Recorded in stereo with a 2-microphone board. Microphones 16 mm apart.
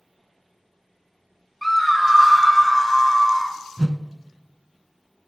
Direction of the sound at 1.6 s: 10° left (ahead or behind).